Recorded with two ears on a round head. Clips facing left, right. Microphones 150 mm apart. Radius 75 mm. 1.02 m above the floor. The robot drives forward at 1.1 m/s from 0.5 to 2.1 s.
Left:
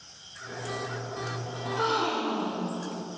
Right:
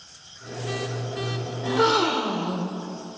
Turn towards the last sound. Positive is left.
turn(degrees=-65)  # may be behind; listen again after turning